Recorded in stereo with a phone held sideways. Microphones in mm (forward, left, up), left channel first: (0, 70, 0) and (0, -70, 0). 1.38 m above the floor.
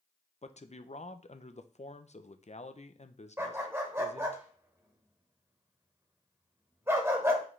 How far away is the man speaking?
About 0.6 m.